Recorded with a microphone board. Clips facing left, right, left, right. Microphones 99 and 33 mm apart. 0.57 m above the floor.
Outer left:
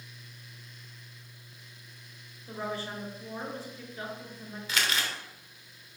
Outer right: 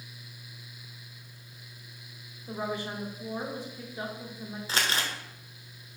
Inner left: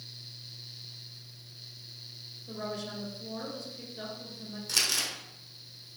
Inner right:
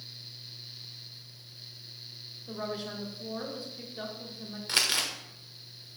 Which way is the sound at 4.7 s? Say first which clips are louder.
Outer right 1 dB, inner right 2 dB; 30° right (ahead or behind).